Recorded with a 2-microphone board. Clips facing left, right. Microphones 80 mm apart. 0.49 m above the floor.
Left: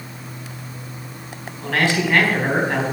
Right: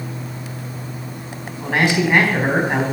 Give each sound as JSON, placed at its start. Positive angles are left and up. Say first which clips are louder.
{"t": 1.6, "sound": "a man speaking", "louder": "right 2 dB", "side_deg": -15, "distance_m": 3.5}